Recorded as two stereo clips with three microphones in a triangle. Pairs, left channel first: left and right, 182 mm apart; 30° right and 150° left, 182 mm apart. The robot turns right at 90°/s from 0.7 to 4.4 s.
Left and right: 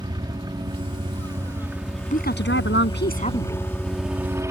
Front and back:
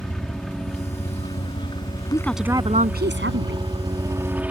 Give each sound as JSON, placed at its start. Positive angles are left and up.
{"t": 0.0, "sound": "a helicopter", "azimuth_deg": -115}
{"t": 2.1, "sound": "a woman speaking", "azimuth_deg": 40}